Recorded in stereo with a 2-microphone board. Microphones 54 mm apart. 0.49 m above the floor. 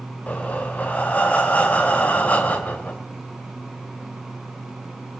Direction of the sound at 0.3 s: 30° left (ahead or behind).